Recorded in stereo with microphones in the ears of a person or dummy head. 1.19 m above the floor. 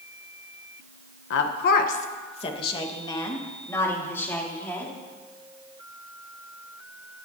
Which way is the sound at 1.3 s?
65° left (ahead or behind).